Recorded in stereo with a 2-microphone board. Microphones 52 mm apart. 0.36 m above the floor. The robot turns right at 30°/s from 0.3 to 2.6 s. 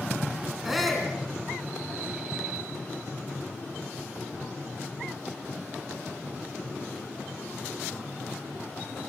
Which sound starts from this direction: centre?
A shout, at 0.7 s.